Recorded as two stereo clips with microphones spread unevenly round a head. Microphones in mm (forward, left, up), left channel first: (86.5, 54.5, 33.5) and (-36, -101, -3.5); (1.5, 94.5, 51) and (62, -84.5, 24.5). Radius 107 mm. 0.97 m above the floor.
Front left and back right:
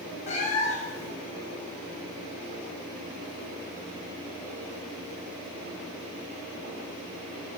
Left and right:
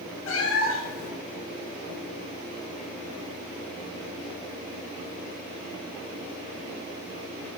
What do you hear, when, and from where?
0.3 s a cat meowing: 105° left, 1.0 m